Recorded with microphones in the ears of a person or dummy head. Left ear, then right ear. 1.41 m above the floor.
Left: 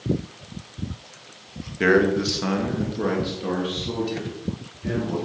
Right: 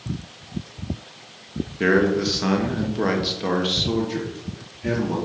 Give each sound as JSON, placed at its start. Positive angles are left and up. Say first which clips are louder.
{"t": 1.8, "sound": "a man speaking", "louder": "left 1 dB", "side_deg": 20, "distance_m": 1.2}